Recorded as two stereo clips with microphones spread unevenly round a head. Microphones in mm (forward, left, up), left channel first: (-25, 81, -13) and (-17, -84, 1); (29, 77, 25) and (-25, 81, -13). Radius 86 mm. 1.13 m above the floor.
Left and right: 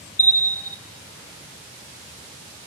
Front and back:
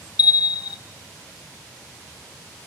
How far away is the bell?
About 0.6 m.